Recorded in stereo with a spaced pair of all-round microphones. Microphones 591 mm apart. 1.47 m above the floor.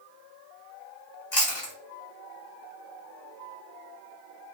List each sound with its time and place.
1.3 s chewing: 50° left (ahead or behind), 2 m